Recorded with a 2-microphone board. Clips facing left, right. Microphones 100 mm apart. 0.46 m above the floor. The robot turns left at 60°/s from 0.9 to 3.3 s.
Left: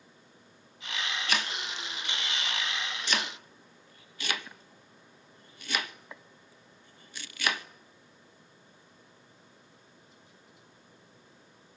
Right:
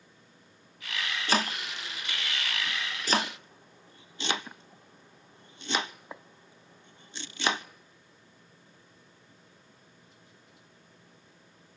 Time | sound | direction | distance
1.3 | chopping | 30° right (ahead or behind) | 0.6 m